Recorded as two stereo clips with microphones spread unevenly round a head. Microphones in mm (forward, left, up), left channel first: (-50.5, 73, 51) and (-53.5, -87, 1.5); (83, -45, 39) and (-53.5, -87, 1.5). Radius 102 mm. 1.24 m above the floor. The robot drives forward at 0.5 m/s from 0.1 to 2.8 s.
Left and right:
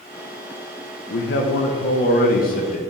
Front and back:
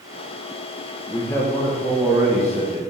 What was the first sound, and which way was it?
A man speaking, 90° left.